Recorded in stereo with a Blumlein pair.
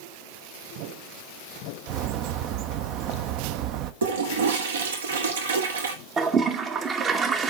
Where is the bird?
40° right, 0.7 m.